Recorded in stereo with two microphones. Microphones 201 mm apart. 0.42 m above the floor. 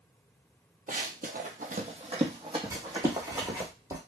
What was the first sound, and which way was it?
Running footsteps, 45° right (ahead or behind).